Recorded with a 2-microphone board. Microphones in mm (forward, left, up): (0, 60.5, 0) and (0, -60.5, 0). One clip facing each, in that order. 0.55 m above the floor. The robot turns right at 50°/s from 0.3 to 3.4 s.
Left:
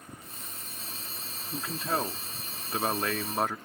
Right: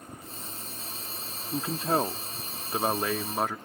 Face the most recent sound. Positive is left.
turn(degrees=-15)